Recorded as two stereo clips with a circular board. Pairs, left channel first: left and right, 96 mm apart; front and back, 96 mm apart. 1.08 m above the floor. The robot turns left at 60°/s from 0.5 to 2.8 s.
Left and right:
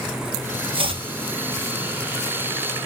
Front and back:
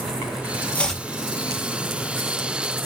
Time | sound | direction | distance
0.7 | chopping | 75° right | 0.7 m